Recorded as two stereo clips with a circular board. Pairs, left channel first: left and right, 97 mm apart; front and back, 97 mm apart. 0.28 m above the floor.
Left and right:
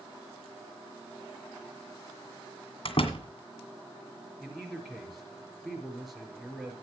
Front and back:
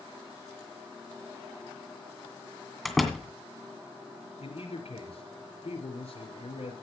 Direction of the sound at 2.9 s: 90° left.